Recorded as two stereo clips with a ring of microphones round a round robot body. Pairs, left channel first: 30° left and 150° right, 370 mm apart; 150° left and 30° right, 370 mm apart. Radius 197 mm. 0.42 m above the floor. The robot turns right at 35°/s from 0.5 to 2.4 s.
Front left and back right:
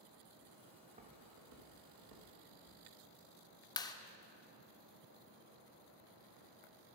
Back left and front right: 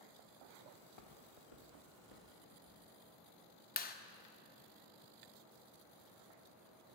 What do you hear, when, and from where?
0.8 s footsteps: 125° left, 2 m; by 2.8 s 165° right, 3.5 m
3.8 s a clap: 100° left, 0.6 m